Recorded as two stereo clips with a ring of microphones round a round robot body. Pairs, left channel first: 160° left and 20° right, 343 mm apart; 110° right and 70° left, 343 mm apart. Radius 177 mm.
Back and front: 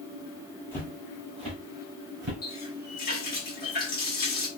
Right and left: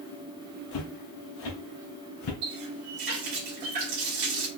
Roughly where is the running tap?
Left.